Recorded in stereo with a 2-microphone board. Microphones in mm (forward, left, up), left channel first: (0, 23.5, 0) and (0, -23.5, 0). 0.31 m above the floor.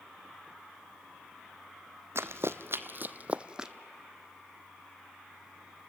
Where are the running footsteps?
70° right (ahead or behind), 0.7 m; by 3.7 s 10° right (ahead or behind), 0.7 m.